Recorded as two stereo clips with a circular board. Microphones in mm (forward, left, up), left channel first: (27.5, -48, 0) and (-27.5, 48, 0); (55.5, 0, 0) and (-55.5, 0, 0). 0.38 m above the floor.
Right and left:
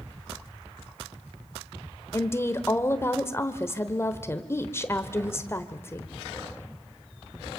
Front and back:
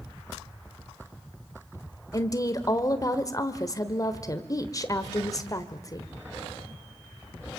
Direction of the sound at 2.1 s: 15° right.